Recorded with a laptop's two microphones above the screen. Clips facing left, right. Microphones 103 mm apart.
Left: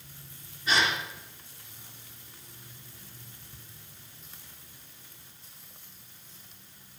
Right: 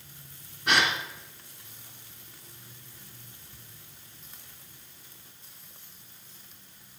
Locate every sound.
0.7 s a gasp: 65° right (ahead or behind), 2.5 m